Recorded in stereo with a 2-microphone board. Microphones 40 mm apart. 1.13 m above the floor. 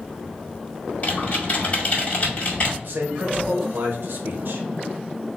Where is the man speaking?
60° right (ahead or behind), 1.0 m.